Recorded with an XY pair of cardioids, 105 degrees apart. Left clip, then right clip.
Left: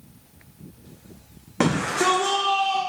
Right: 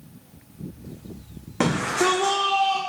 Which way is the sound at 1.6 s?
15° left.